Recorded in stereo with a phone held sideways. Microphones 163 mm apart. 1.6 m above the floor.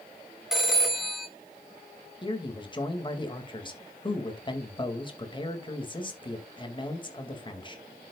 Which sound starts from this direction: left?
A man speaking, at 2.2 s.